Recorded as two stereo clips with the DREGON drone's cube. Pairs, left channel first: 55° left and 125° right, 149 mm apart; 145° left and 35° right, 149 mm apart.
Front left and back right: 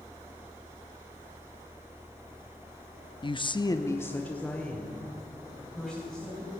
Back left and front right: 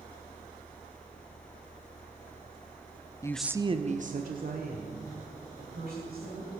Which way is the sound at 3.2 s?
90° left.